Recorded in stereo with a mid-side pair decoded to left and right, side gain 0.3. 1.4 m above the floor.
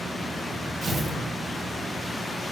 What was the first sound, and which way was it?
Tearing paper, 65° right.